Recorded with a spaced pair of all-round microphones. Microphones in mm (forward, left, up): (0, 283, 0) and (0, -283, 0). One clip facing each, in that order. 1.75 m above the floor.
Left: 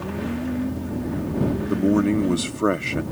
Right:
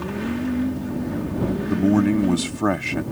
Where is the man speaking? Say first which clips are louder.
Right 2 dB; 15° right (ahead or behind).